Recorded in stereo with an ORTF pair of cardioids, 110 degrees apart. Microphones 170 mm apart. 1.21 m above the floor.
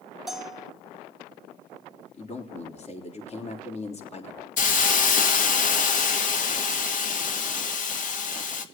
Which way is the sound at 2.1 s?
40° left.